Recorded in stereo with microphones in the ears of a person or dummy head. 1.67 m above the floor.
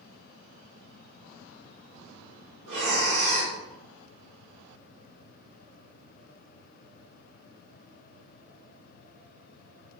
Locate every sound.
2.7 s breathing: 80° right, 1.2 m